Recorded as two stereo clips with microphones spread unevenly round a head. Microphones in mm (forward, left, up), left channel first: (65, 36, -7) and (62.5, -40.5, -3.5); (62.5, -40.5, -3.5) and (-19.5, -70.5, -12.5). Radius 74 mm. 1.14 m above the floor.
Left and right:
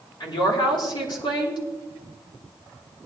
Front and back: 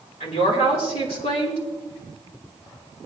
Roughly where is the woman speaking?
Left.